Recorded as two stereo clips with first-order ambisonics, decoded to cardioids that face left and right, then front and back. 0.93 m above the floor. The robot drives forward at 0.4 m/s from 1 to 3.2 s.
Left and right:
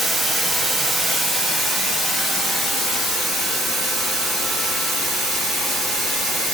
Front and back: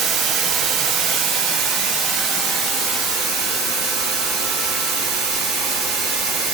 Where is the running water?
175° right, 0.9 m; by 6.5 s straight behind, 1.7 m.